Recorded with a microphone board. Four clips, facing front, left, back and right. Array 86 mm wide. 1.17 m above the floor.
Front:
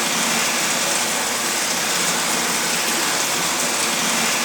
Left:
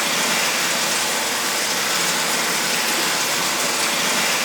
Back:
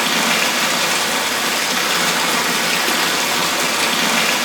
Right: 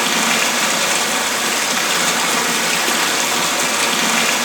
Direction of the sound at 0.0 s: 130° right.